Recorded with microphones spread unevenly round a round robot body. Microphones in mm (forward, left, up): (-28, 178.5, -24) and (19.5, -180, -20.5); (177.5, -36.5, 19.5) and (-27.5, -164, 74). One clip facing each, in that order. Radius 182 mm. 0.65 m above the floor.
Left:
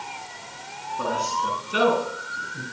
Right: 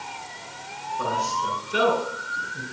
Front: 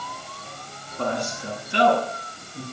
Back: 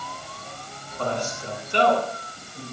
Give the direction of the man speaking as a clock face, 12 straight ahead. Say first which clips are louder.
Left 1 dB, front 1 dB; 10 o'clock.